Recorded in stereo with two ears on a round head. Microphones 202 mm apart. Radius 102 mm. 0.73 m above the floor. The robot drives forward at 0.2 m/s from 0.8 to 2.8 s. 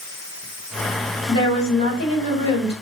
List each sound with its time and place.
1.3 s a woman speaking: 30° left (ahead or behind), 1.5 m; by 2.7 s 25° left (ahead or behind), 1.8 m